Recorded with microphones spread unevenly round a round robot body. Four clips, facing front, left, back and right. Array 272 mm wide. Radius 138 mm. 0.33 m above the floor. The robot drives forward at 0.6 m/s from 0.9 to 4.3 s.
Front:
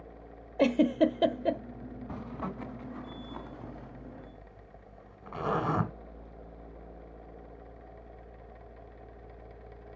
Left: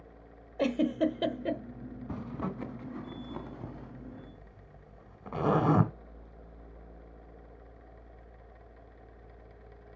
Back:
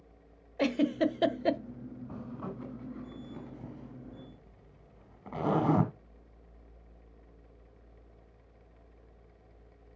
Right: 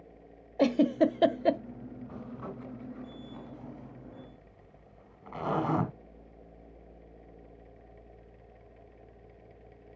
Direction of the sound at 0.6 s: 40° right.